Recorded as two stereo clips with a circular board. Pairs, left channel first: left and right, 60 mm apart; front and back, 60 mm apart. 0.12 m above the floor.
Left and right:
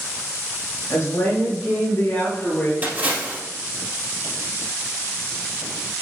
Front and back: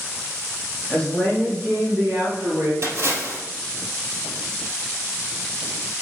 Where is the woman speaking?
70° left, 2 m; by 2.7 s 145° left, 2.5 m.